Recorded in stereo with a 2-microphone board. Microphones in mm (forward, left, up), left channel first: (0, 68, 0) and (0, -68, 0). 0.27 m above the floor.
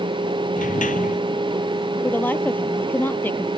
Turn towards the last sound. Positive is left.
turn(degrees=15)  # may be behind; listen again after turning